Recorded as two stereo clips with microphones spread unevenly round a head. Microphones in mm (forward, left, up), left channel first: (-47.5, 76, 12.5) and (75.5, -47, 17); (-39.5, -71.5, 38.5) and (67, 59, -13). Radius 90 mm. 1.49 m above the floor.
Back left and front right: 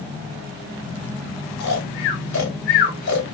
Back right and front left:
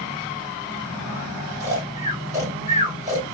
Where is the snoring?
135° left, 1.7 m.